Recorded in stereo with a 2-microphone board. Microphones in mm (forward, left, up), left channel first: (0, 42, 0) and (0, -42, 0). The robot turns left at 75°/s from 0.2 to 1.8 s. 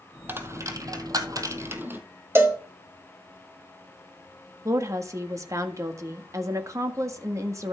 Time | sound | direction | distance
0.3 | a dropped coin | 25° right (ahead or behind) | 1.4 m
2.4 | a cowbell | 30° right (ahead or behind) | 1.5 m
4.7 | a woman speaking | 40° right (ahead or behind) | 1.5 m